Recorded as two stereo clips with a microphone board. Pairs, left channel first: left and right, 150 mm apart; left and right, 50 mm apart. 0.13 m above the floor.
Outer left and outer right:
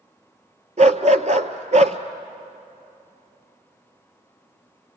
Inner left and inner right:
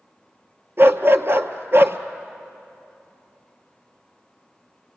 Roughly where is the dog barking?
Right.